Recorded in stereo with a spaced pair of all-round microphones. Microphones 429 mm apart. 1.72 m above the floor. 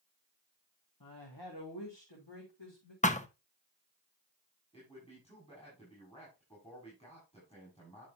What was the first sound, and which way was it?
A woman speaking, 50° left (ahead or behind).